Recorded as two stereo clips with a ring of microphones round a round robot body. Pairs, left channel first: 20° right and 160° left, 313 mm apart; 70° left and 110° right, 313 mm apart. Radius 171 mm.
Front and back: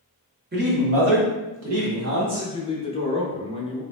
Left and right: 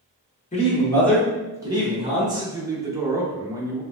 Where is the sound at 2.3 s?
55° right, 0.7 m.